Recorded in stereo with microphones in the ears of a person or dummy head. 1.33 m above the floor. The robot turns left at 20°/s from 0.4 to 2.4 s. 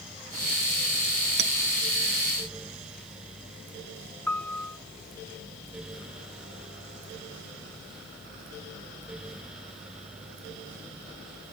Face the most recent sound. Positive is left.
turn(degrees=5)  # may be behind; listen again after turning